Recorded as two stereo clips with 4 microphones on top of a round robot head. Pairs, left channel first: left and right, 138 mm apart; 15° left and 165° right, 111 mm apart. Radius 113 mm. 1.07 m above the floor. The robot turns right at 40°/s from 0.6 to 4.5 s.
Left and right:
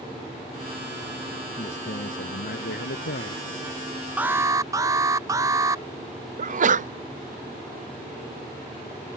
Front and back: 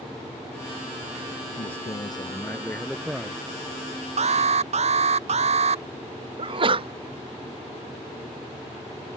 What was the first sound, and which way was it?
A man speaking, 45° left.